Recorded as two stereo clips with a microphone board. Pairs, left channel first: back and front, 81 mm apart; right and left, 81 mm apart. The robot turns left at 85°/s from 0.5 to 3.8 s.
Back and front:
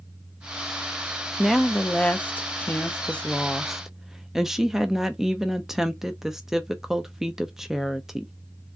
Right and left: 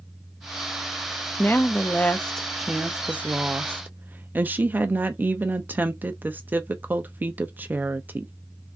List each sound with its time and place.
1.4 s a woman speaking: 80° right, 0.5 m; by 8.3 s 75° left, 0.5 m